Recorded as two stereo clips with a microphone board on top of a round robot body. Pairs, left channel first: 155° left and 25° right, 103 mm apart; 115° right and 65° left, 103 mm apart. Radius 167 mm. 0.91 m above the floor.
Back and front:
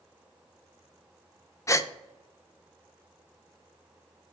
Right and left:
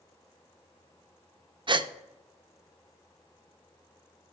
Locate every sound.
1.7 s a gasp: 100° left, 0.6 m